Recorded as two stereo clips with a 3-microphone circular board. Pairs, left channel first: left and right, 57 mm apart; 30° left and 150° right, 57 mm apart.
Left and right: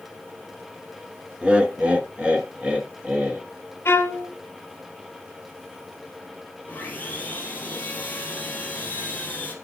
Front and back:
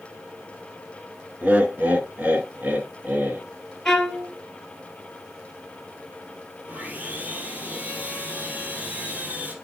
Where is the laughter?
135° right, 1.2 m.